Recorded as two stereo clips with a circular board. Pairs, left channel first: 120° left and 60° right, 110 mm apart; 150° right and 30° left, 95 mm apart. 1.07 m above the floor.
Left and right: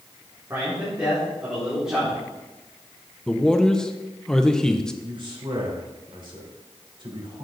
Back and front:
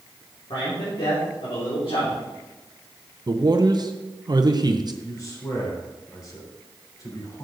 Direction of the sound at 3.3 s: 40° left.